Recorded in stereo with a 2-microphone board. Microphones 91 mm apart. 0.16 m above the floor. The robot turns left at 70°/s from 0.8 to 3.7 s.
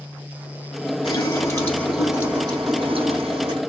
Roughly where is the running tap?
Ahead left.